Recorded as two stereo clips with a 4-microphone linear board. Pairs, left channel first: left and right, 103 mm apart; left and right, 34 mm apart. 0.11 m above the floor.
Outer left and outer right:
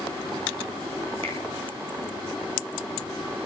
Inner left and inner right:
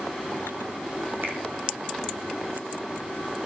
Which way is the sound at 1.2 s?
75° right (ahead or behind).